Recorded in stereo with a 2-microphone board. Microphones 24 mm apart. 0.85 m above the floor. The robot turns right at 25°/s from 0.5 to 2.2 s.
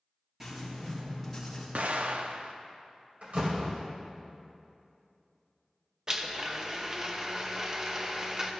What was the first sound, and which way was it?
Writing, 15° right (ahead or behind).